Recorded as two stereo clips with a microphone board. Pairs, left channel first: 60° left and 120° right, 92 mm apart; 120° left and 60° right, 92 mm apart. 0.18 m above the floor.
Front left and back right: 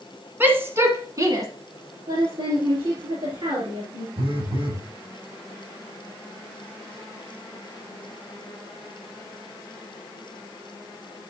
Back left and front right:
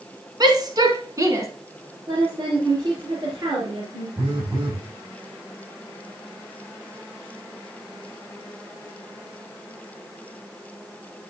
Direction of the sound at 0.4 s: 60° right.